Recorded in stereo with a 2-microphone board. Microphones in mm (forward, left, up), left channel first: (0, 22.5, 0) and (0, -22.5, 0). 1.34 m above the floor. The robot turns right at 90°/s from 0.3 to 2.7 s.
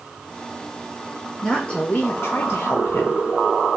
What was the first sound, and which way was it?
A woman speaking, straight ahead.